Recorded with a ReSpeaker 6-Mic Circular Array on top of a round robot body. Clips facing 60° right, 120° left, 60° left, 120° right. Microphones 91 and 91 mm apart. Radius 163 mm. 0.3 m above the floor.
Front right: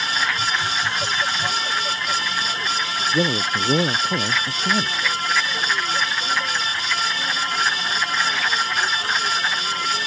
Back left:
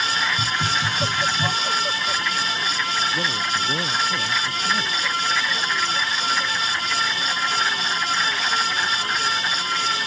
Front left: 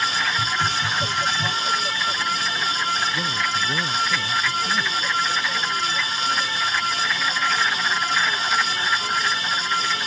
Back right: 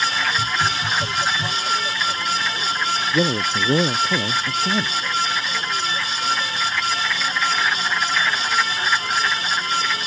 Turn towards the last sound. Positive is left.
turn(degrees=-115)